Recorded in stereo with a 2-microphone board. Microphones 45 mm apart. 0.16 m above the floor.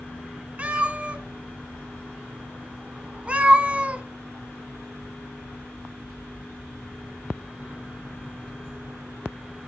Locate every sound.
0.6 s a cat meowing: 30° right (ahead or behind), 0.6 m